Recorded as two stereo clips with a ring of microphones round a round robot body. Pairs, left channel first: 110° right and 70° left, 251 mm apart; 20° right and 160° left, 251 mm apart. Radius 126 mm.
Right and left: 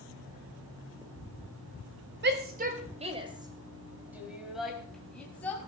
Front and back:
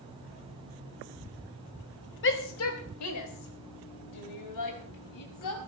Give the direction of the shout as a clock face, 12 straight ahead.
11 o'clock.